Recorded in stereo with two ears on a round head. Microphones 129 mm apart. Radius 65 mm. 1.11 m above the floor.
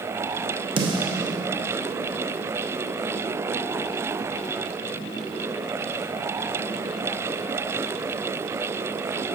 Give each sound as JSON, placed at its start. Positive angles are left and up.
{"t": 0.8, "sound": "a snare drum", "side_deg": -35, "distance_m": 0.8}